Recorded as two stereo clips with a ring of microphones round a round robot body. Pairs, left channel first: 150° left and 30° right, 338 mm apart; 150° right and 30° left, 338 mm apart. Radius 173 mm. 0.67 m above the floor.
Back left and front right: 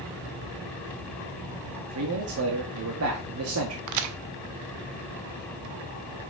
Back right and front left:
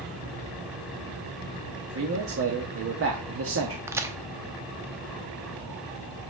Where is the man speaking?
5° right, 1.3 m.